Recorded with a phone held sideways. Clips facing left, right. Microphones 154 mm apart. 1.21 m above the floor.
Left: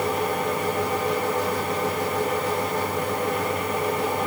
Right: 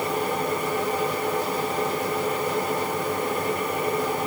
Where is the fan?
75° left (ahead or behind), 8 m.